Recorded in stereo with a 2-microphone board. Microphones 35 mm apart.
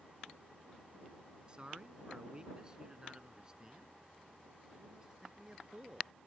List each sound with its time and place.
1.5 s a man speaking: 25° right (ahead or behind); by 6.1 s 15° right (ahead or behind)